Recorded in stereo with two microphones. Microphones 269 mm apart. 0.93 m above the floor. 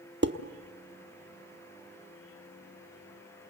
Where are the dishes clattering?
40° right (ahead or behind), 1.1 m.